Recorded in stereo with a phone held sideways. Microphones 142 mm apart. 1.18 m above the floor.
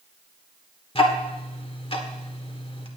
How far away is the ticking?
About 1.6 m.